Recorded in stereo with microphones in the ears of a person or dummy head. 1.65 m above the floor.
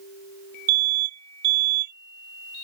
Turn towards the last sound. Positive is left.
turn(degrees=-50)  # may be behind; listen again after turning